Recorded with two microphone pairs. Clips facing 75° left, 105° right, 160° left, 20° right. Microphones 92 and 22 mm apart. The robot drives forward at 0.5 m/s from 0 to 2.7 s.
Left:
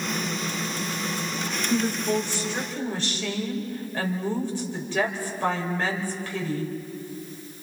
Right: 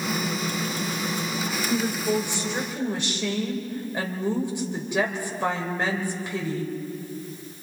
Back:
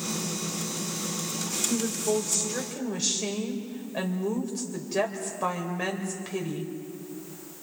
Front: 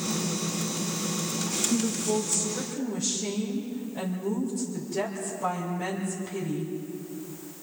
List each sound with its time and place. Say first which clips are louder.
1.7 s a woman speaking: left 1 dB, back 1 dB; 175° right, 2.5 m